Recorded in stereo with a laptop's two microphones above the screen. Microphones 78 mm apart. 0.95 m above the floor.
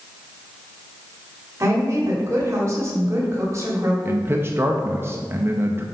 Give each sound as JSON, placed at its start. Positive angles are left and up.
{"t": 1.6, "sound": "a woman speaking", "side_deg": -40, "distance_m": 2.5}
{"t": 4.0, "sound": "a man speaking", "side_deg": -30, "distance_m": 0.6}